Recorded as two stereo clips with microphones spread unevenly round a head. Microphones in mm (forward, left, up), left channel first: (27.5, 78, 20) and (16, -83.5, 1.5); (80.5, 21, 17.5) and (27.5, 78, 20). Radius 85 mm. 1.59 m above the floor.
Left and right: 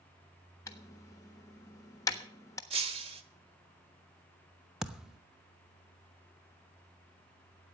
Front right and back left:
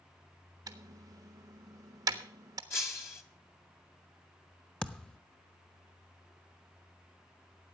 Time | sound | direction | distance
0.7 | typing on a keyboard | 145° left | 1.2 m
2.7 | breaking glass | 70° right | 1.4 m
4.8 | a thud | 5° left | 0.9 m